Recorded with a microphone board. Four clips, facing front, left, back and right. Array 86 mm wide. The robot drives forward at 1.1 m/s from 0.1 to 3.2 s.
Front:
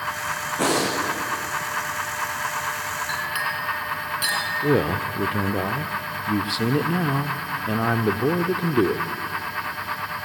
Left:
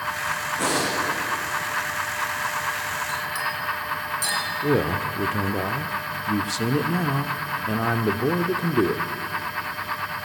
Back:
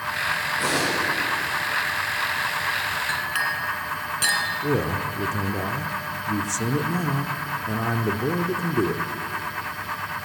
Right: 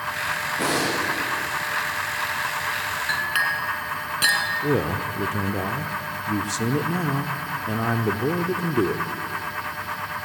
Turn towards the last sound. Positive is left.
turn(degrees=15)